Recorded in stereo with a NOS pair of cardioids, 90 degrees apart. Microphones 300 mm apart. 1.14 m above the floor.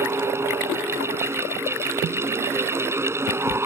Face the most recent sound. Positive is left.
turn(degrees=-10)